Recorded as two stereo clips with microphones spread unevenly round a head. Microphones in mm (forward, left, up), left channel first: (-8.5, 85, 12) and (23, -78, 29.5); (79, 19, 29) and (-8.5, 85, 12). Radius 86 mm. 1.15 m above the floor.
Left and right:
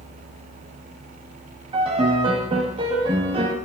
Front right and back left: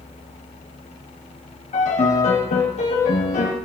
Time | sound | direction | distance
1.7 | a piano | 15° right | 1.8 m